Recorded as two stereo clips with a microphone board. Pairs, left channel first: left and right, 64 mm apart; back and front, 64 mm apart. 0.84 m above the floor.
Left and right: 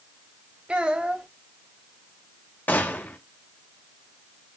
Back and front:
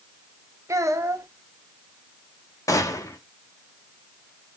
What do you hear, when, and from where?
0.7 s a child speaking: 20° right, 0.7 m
2.7 s a gunshot: 150° left, 0.7 m